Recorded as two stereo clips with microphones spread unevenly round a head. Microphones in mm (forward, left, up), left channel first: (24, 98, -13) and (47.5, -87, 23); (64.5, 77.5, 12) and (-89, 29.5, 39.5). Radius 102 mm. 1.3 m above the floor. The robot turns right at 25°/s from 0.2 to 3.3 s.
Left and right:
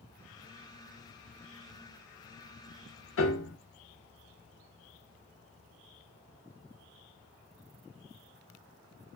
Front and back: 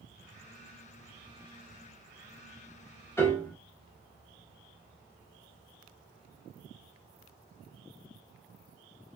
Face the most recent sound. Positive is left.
turn(degrees=100)